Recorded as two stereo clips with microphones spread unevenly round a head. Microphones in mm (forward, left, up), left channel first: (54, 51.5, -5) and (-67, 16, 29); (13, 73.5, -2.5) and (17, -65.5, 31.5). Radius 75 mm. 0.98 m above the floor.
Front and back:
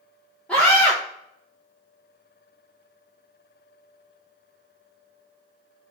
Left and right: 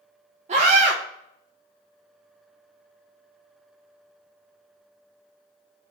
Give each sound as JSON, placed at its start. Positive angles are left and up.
{"t": 0.5, "sound": "a scream", "azimuth_deg": -50, "distance_m": 1.0}